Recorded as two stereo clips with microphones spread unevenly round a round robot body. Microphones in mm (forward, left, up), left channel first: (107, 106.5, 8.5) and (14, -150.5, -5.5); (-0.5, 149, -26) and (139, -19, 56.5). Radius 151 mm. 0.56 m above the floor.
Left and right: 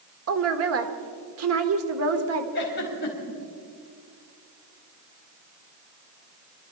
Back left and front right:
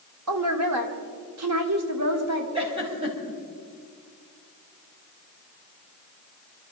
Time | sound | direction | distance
0.3 | a woman speaking | 85° right | 1.5 m
2.5 | a giggle | 20° left | 4 m